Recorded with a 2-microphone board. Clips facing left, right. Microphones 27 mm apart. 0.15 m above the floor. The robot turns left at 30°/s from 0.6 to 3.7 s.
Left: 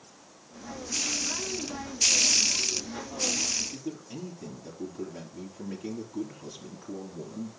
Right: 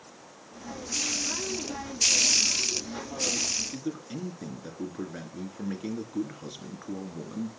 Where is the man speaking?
50° right (ahead or behind), 2.5 m.